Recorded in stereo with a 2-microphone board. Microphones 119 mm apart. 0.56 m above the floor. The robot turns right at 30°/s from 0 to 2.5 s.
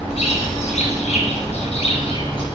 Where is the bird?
70° left, 6 m; by 2.5 s 140° left, 6 m.